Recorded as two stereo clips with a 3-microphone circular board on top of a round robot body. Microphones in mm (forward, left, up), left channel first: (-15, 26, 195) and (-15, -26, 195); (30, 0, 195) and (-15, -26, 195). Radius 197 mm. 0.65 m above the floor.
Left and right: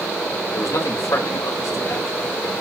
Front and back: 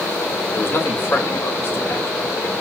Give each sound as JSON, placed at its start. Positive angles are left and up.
{"t": 0.5, "sound": "a man speaking", "azimuth_deg": 80, "distance_m": 3.0}